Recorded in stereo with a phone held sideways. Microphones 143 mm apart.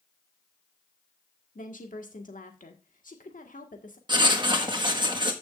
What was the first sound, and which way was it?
A woman speaking, 65° left (ahead or behind).